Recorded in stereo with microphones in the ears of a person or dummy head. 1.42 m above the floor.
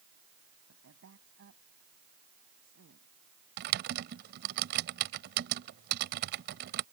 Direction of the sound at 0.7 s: 70° right (ahead or behind).